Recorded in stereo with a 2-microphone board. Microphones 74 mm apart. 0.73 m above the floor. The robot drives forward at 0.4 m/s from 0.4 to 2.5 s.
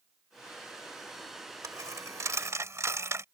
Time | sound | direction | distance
1.6 | a dropped coin | 50° right (ahead or behind) | ?